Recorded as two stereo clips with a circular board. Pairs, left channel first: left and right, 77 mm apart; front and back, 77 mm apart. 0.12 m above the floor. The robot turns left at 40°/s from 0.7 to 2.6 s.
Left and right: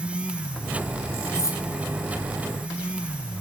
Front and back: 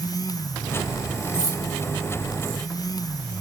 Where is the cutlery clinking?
45° left, 1.8 m; by 1.6 s 35° left, 1.8 m.